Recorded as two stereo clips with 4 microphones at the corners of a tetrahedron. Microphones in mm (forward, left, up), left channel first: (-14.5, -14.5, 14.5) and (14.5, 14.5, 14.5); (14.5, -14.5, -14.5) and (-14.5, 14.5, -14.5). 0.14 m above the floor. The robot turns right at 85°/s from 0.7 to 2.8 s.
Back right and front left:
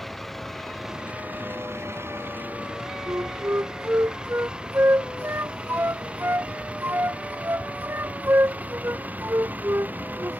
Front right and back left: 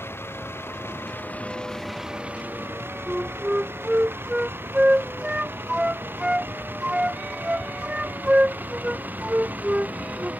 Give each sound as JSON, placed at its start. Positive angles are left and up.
{"t": 0.0, "sound": "a vehicle", "azimuth_deg": -50}
{"t": 3.1, "sound": "a flute", "azimuth_deg": 70}